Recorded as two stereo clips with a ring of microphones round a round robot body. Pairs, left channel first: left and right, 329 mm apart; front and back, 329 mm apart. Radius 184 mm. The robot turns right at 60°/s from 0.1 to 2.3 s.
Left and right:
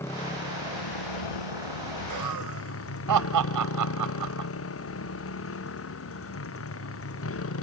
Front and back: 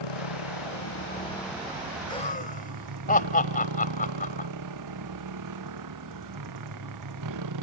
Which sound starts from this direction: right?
Laughter, at 2.1 s.